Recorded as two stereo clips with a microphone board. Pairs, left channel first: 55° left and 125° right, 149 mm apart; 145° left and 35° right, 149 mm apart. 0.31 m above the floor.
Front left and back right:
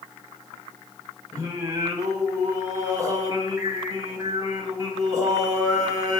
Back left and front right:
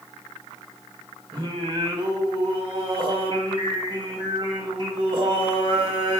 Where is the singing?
70° right, 0.9 m.